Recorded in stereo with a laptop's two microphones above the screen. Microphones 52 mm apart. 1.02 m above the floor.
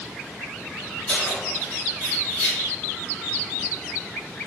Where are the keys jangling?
25° left (ahead or behind), 1.5 m.